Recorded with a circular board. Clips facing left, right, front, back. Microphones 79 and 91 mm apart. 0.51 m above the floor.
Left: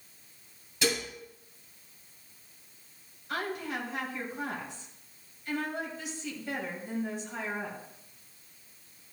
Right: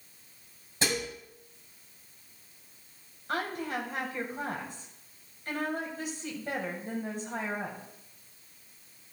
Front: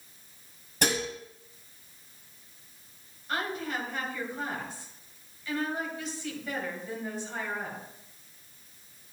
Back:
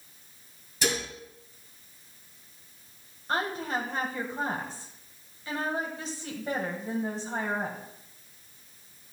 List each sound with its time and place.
0.8 s dishes clattering: 35° right, 2 m
3.3 s a woman speaking: 125° right, 2.5 m